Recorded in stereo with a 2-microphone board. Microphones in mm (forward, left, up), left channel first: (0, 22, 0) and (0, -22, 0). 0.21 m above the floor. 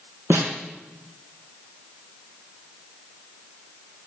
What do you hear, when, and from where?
0.3 s a snare drum: 60° right (ahead or behind), 3 m